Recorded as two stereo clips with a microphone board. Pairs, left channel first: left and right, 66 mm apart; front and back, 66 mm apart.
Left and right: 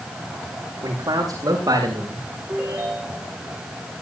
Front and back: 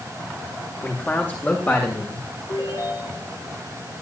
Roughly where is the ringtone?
Ahead.